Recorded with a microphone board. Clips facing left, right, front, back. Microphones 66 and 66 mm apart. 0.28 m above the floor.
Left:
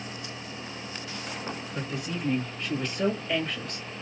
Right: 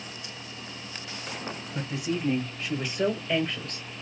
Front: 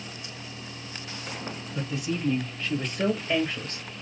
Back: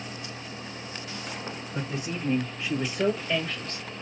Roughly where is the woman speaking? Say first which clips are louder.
Right 5 dB, front 3 dB; behind.